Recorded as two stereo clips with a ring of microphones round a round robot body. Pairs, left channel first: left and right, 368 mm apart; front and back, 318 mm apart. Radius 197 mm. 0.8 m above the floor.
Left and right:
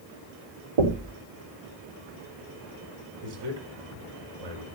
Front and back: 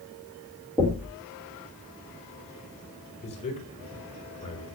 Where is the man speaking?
75° right, 4 m.